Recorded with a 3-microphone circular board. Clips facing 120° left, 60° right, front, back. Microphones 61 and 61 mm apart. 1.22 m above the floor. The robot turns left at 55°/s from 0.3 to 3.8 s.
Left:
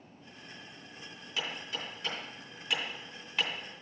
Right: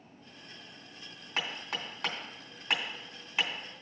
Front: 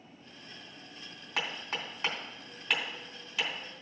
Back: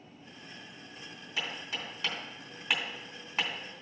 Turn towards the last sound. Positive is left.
turn(degrees=-160)